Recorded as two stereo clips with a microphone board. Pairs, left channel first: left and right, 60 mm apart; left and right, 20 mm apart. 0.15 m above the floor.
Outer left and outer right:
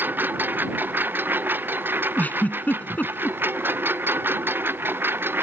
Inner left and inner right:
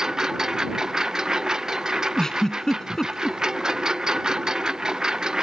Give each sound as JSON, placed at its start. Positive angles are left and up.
{"t": 0.0, "sound": "a lawn mower", "side_deg": -35}
{"t": 2.2, "sound": "a giggle", "side_deg": 30}